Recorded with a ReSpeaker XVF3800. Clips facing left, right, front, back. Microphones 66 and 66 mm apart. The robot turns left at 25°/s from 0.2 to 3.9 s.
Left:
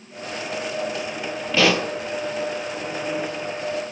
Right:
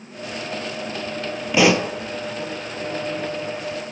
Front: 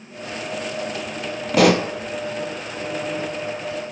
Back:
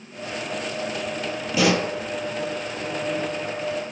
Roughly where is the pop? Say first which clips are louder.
Right 3 dB, front 5 dB; ahead.